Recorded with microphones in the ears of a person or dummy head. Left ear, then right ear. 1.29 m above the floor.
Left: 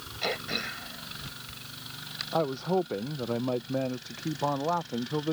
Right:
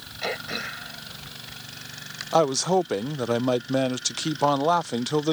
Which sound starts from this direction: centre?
Throat clearing, at 0.2 s.